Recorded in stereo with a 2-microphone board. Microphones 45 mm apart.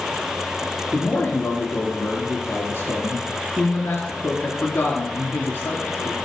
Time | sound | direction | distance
0.9 | a man speaking | 50° left (ahead or behind) | 2.0 m